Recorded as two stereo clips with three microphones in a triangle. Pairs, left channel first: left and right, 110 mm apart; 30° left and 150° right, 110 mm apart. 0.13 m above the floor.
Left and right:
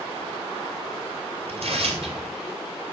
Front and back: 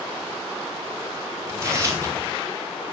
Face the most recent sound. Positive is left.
turn(degrees=-85)